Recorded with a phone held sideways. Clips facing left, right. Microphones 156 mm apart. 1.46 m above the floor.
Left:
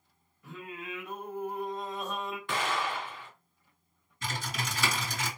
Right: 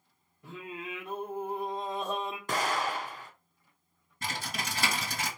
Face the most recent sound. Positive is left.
turn(degrees=-55)  # may be behind; listen again after turning